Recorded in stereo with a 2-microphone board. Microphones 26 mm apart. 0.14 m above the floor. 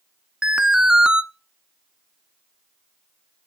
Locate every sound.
0.4 s an alarm: 30° right (ahead or behind), 1.0 m